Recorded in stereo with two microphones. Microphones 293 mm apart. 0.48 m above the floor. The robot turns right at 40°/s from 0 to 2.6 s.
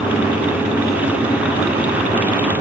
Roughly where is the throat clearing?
I don't hear throat clearing.